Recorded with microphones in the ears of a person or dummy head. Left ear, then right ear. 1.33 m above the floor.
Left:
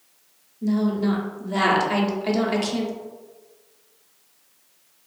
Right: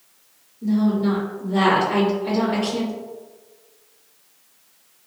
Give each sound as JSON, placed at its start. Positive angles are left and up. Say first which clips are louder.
{"t": 0.6, "sound": "a woman speaking", "louder": "right 2 dB", "side_deg": 50, "distance_m": 0.7}